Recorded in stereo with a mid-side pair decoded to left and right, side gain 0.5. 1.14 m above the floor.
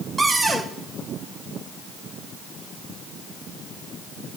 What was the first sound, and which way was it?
A cupboard door, 15° right.